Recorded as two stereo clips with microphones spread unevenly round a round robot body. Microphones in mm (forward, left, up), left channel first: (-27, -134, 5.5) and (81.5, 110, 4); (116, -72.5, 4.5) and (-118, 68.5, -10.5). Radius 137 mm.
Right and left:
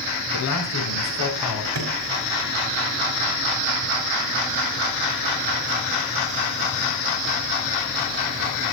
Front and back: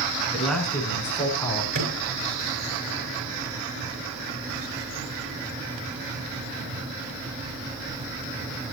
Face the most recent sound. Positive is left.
turn(degrees=105)